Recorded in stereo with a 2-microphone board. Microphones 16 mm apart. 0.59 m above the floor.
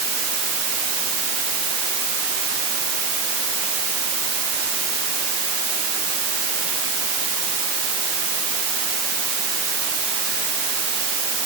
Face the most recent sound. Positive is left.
No sound to turn to.